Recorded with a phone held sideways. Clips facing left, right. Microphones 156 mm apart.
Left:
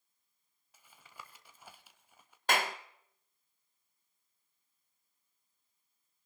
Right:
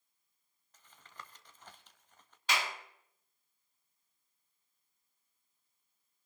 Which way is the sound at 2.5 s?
55° left (ahead or behind).